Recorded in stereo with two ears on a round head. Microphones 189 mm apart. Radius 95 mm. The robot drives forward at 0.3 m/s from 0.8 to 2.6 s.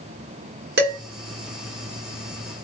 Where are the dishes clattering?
50° right (ahead or behind), 1.1 m.